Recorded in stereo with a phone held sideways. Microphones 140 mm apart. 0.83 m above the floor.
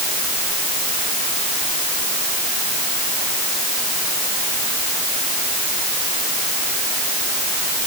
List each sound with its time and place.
Only background noise.